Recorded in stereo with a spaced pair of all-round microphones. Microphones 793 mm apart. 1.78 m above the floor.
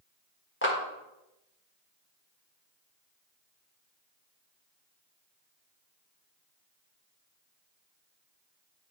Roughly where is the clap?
Centre.